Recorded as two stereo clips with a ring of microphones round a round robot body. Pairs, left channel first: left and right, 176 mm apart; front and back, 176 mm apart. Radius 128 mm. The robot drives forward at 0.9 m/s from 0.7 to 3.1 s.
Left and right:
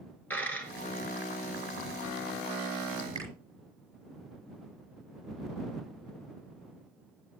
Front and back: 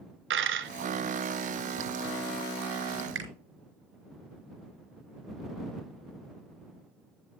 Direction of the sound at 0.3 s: 175° left.